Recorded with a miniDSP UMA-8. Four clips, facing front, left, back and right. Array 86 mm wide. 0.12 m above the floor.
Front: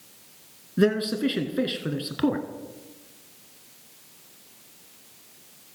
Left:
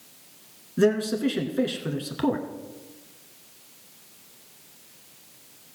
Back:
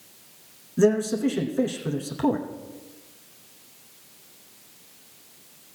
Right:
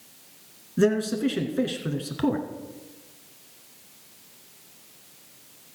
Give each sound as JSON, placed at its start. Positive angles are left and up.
{"t": 0.8, "sound": "a man speaking", "azimuth_deg": 5, "distance_m": 1.4}